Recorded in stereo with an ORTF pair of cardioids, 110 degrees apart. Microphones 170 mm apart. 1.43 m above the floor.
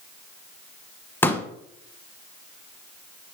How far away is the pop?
About 1.2 m.